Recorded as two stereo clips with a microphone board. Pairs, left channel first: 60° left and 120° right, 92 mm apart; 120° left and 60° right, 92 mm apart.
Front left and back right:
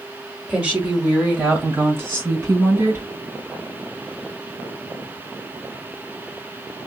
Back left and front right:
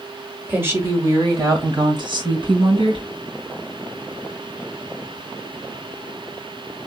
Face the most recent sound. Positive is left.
turn(degrees=-60)